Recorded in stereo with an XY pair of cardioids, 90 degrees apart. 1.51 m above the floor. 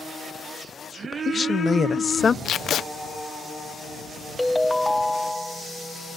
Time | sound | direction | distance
1.0 | a woman speaking | 40° left | ?
2.5 | tape being pulled | 70° left | ?
4.4 | a ringtone | 5° left | ?